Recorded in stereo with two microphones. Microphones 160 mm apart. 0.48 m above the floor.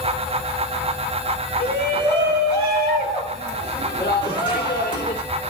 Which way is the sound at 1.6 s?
15° left (ahead or behind).